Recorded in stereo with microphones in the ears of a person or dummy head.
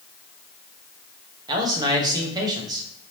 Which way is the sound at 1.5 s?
20° right (ahead or behind).